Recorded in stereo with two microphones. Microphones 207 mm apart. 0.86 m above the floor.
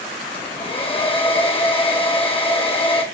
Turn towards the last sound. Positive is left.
turn(degrees=25)  # may be behind; listen again after turning